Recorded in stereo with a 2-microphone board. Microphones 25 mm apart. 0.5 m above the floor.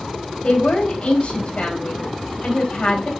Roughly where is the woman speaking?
Left.